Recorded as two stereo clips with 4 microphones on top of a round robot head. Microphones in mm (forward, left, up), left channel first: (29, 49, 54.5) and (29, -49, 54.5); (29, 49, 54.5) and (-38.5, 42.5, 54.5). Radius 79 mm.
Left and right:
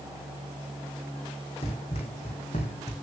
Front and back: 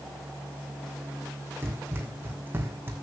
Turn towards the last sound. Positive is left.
turn(degrees=130)